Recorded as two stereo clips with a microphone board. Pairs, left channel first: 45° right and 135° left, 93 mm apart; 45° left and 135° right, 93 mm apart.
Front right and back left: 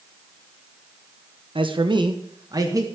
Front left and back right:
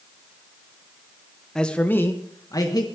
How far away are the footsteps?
I don't hear footsteps.